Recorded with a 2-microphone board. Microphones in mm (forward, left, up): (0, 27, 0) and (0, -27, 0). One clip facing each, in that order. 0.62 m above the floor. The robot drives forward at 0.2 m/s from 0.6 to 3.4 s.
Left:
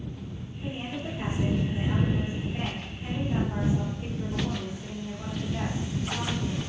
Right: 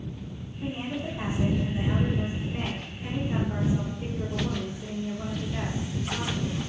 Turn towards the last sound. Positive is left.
turn(degrees=-55)  # may be behind; listen again after turning